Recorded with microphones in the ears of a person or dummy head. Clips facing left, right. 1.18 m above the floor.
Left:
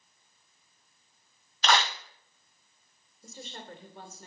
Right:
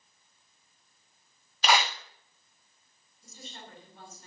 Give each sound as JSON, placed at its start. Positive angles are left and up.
{"t": 1.6, "sound": "a clap", "side_deg": -5, "distance_m": 0.9}
{"t": 3.2, "sound": "a woman speaking", "side_deg": 55, "distance_m": 3.5}